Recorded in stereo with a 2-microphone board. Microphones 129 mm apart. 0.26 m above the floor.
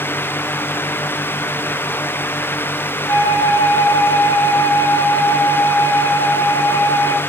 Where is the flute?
45° left (ahead or behind), 1.0 m.